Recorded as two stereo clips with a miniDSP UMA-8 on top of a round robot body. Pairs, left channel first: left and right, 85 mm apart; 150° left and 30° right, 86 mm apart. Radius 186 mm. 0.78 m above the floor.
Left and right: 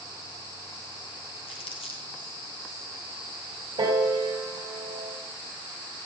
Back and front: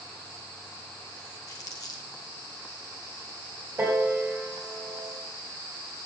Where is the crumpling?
100° left, 1.0 m.